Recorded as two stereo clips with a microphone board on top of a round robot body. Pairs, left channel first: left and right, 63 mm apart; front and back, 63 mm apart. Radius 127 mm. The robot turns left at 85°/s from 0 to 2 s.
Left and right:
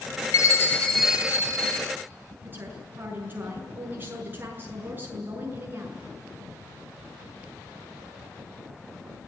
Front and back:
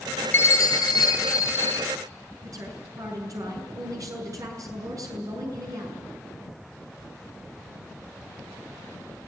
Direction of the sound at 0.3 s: 55° left.